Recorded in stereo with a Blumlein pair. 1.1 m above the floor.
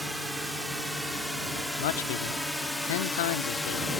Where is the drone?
Straight ahead; by 4.0 s 10° left.